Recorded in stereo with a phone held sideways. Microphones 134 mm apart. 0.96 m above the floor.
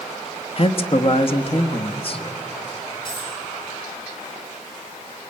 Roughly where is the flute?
No flute in this recording.